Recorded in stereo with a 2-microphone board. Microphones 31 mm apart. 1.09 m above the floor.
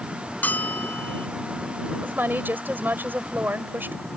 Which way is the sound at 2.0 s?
80° right.